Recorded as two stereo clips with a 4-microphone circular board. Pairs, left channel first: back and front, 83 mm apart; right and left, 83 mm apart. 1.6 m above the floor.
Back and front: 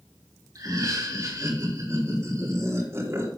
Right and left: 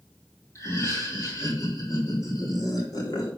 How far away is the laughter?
About 3 m.